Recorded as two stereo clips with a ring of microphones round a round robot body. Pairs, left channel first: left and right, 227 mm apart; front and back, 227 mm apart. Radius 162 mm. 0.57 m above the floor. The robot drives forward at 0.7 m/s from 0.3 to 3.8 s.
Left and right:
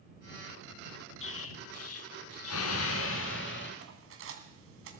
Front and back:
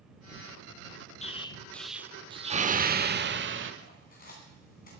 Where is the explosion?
60° left, 1.0 m; by 3.7 s 145° left, 1.6 m.